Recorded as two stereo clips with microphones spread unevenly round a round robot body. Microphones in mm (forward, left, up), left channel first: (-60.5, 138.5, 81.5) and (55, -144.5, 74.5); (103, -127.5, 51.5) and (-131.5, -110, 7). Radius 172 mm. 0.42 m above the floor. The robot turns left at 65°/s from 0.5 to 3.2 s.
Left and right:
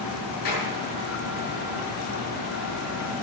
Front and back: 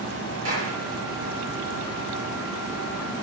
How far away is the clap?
About 8.5 m.